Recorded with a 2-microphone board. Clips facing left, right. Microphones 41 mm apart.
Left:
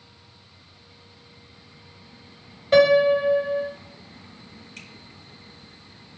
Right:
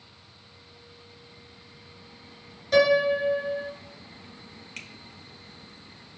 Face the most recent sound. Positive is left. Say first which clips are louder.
# right 3 dB
turn(degrees=-70)  # may be behind; listen again after turning